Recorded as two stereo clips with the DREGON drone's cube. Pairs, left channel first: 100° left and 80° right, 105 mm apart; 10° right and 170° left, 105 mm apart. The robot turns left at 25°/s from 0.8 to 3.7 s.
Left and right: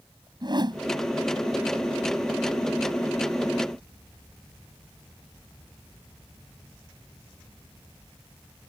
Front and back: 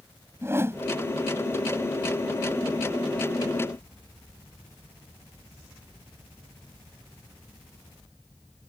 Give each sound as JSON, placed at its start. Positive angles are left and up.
{"t": 0.4, "sound": "a whoosh", "azimuth_deg": -125}